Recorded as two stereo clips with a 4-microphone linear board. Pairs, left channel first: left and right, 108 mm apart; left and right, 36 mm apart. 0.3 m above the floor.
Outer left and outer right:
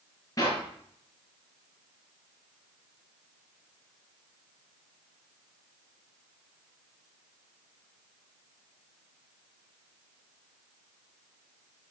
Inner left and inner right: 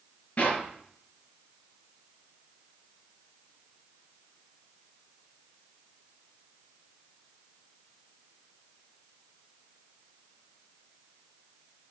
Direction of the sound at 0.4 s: 35° left (ahead or behind).